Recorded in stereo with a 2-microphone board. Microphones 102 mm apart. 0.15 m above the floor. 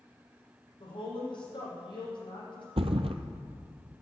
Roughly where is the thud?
Right.